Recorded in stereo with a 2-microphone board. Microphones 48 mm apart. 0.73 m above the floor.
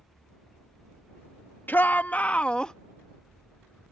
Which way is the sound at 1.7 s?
40° left (ahead or behind).